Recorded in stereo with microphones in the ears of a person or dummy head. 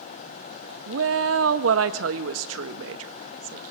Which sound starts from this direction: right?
A woman speaking, at 0.9 s.